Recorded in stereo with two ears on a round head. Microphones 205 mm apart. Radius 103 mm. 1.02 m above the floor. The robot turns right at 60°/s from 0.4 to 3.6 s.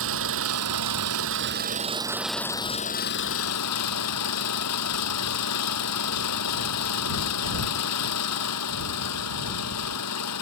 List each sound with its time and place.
0.0 s an engine running: 115° right; by 10.4 s 80° left